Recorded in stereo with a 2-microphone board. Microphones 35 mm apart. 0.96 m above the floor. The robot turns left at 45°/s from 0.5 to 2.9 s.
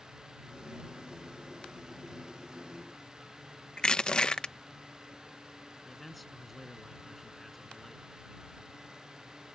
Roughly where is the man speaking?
Centre.